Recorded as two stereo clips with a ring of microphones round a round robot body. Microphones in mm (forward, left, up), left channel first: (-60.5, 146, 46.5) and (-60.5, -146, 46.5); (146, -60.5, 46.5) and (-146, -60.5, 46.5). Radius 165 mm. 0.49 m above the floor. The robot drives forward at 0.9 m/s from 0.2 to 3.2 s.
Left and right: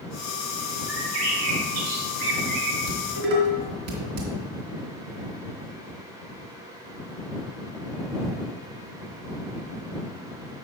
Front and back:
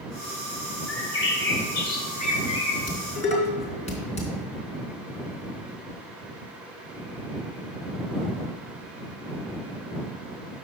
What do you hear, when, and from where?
0.9 s a bird: 45° right, 3 m; by 2.8 s 75° right, 2 m
2.9 s dishes clattering: 65° right, 3.5 m